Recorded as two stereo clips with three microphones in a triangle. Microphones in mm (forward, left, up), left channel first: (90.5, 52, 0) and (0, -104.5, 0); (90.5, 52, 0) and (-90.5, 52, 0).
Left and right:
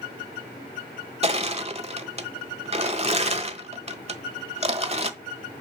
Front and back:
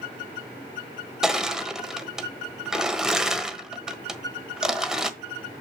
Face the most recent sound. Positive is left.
turn(degrees=-95)